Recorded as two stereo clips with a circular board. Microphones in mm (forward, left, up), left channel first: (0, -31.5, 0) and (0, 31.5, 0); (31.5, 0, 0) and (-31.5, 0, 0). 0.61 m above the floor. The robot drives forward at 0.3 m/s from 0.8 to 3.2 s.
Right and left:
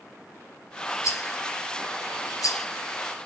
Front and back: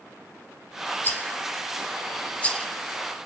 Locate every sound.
1.0 s a rattle: 60° right, 2.5 m; by 2.7 s 70° right, 2 m